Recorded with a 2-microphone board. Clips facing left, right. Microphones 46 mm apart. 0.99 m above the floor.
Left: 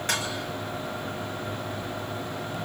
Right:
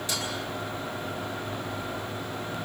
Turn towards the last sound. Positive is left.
turn(degrees=50)  # may be behind; listen again after turning